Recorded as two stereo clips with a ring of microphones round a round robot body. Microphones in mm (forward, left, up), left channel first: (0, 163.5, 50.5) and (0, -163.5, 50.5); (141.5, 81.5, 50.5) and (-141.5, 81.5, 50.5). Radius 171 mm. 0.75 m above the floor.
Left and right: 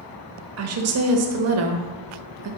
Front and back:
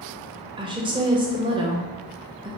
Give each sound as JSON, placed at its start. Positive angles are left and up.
{"t": 0.6, "sound": "a woman speaking", "azimuth_deg": -110, "distance_m": 0.7}